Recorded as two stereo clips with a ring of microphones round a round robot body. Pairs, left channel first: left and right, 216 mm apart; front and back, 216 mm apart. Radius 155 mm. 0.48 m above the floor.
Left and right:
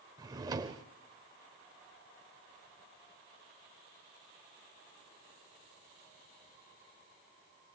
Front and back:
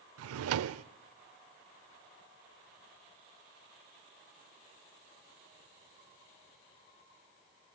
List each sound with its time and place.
0.2 s a drawer: 165° right, 0.6 m